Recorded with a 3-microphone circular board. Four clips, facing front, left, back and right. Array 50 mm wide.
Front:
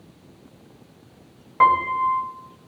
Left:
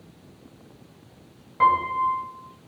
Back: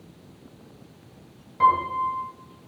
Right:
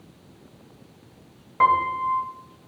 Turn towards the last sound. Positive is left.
turn(degrees=-25)